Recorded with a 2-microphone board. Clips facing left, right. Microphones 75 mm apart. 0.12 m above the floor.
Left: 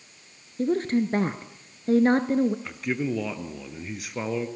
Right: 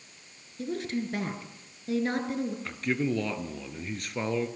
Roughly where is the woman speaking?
Left.